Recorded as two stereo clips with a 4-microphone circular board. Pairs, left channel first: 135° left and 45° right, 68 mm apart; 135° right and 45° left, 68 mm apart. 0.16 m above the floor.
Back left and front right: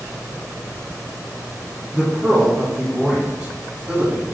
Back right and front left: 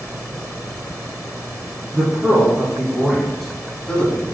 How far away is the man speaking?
About 1.4 m.